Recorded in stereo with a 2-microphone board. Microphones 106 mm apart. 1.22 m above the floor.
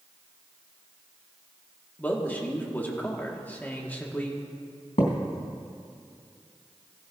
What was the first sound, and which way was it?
A man speaking, 15° left (ahead or behind).